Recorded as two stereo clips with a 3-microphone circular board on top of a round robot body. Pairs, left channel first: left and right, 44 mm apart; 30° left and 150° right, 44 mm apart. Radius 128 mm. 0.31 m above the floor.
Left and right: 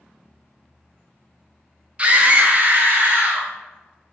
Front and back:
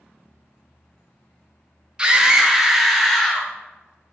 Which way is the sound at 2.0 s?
105° right.